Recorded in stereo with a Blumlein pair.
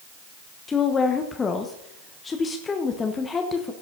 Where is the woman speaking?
15° left, 1.2 m.